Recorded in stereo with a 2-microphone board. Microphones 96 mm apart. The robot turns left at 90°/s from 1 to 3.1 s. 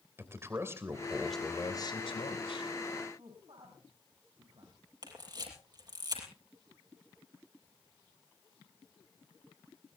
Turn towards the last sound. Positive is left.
turn(degrees=-45)  # may be behind; listen again after turning